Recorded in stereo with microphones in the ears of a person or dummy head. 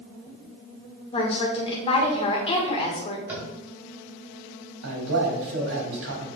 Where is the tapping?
10° right (ahead or behind), 2 m.